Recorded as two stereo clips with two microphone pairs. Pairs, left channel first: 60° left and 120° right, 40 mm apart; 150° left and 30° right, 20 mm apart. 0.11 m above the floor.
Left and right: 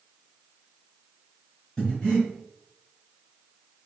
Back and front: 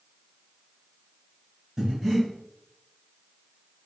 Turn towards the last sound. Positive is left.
turn(degrees=5)